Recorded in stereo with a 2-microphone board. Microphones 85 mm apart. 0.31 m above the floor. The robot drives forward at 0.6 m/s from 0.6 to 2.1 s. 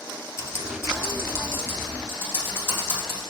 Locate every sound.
0.4 s typing on a keyboard: 35° left (ahead or behind), 1.5 m; by 3.2 s 20° left (ahead or behind), 2.5 m